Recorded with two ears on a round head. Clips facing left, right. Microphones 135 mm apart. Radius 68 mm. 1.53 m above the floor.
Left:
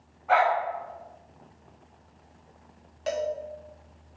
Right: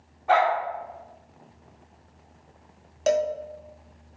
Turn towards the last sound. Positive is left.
turn(degrees=-50)  # may be behind; listen again after turning